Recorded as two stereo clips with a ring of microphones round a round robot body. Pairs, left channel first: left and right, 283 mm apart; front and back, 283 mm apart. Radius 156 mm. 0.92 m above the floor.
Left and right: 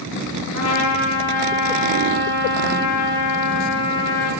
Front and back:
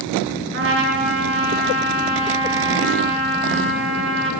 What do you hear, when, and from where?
0.5 s a trumpet: 135° left, 9.5 m